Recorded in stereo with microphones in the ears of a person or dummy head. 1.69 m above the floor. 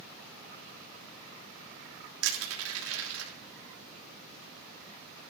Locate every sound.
2.2 s crushing: 80° right, 3 m